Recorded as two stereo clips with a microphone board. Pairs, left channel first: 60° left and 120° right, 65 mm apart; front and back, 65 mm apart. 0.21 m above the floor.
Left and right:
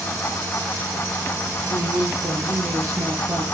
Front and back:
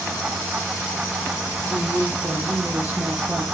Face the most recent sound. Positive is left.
turn(degrees=-125)